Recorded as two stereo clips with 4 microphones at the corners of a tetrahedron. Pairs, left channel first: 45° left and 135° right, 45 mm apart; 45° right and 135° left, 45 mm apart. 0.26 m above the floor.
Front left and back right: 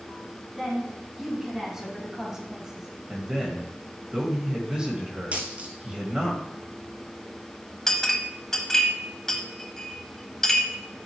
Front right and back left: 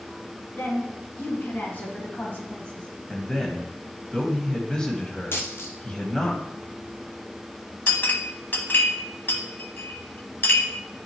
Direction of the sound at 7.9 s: 30° right.